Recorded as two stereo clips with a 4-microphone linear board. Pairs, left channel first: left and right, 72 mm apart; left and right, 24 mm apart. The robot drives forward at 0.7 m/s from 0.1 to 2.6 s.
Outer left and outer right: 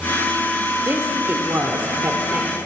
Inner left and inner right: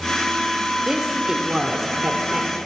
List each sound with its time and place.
0.8 s a woman speaking: 30° right (ahead or behind), 1.0 m; by 2.6 s 25° right (ahead or behind), 1.2 m